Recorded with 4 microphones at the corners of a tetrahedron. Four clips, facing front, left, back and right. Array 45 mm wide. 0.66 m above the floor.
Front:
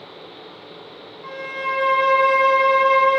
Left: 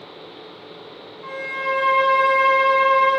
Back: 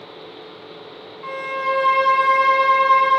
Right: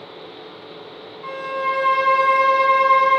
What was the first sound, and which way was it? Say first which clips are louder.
A violin: right 2 dB, back 3 dB; 175° left.